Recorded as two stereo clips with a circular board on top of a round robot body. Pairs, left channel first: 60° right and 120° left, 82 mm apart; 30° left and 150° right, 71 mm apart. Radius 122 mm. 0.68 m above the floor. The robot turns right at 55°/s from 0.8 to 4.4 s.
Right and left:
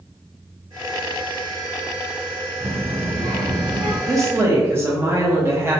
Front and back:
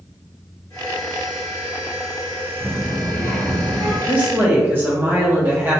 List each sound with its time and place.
2.6 s a child speaking: 60° left, 1.3 m; by 4.0 s 140° left, 1.3 m
4.1 s a woman speaking: 145° left, 0.9 m; by 5.8 s 165° left, 0.9 m